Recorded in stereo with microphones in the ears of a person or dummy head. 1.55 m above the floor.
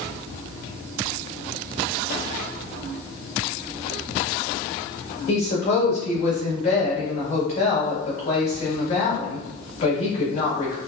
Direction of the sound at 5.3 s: 45° left (ahead or behind).